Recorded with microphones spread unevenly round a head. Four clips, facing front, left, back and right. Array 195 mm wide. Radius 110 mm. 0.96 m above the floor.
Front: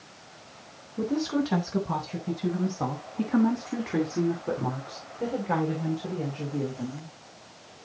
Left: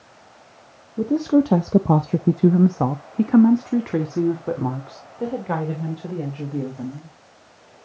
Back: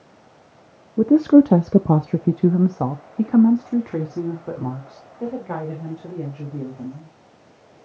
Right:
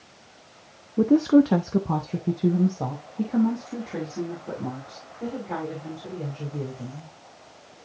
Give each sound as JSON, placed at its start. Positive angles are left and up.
{"t": 1.0, "sound": "a woman speaking", "azimuth_deg": -160, "distance_m": 0.8}